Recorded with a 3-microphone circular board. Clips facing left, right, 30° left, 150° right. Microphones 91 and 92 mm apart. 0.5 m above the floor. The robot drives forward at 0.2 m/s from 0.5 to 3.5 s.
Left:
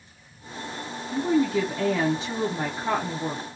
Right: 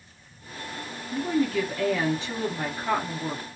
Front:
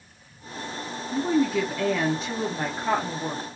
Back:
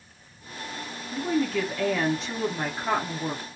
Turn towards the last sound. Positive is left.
turn(degrees=140)